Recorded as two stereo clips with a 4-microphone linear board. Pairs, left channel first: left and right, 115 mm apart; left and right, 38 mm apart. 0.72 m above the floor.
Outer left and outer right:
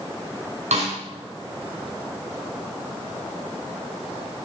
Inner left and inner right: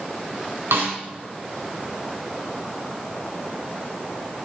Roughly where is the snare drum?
Right.